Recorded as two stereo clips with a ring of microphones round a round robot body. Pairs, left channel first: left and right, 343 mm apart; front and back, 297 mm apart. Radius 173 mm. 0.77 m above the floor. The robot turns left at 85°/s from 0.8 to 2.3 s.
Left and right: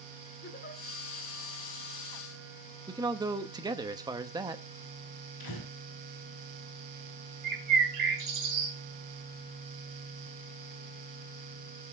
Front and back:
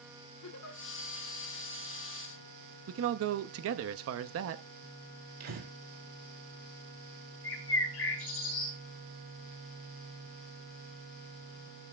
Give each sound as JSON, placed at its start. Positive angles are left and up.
{"t": 0.4, "sound": "a giggle", "azimuth_deg": 30, "distance_m": 1.9}
{"t": 2.9, "sound": "a man speaking", "azimuth_deg": -165, "distance_m": 0.8}
{"t": 5.4, "sound": "breathing", "azimuth_deg": 145, "distance_m": 4.5}
{"t": 7.4, "sound": "a bird", "azimuth_deg": -55, "distance_m": 4.5}